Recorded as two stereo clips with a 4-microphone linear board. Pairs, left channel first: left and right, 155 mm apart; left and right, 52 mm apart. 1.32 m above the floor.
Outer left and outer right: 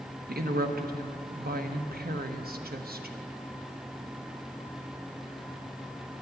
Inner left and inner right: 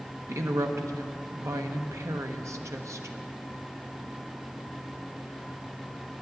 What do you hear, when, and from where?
0.3 s a woman speaking: 75° right (ahead or behind), 1.0 m